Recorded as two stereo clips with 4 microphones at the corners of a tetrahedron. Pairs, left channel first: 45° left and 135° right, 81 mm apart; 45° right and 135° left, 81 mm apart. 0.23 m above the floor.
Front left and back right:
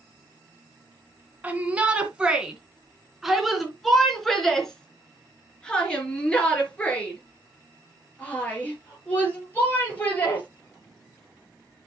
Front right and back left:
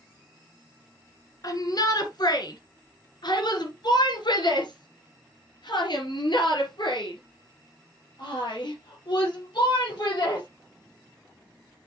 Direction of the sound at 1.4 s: 70° right.